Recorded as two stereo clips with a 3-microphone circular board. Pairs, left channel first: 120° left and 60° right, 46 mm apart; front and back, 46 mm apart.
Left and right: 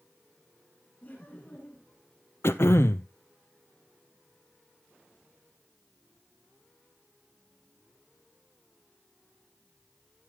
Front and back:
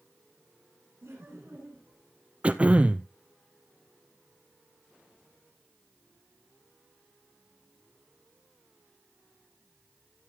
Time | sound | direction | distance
1.0 | laughter | 170° left | 6 m
2.4 | throat clearing | 120° left | 0.7 m